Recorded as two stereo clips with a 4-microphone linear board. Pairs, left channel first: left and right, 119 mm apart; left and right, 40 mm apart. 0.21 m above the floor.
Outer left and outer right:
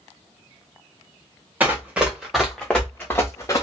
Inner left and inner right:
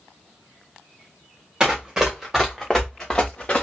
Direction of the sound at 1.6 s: 15° right (ahead or behind).